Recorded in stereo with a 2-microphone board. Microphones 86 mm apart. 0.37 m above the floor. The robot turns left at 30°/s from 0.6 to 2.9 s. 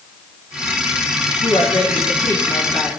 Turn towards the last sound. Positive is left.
turn(degrees=35)